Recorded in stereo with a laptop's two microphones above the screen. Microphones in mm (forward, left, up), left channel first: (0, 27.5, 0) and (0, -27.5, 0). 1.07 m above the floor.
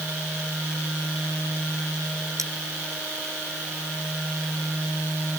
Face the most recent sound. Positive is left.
turn(degrees=-80)